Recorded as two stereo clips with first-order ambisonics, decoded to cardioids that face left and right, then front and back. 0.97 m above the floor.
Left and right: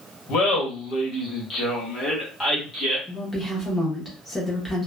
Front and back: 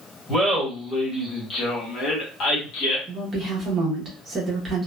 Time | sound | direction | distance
0.3 | laughter | 100° left | 1.2 m
3.1 | a woman speaking | 155° left | 0.9 m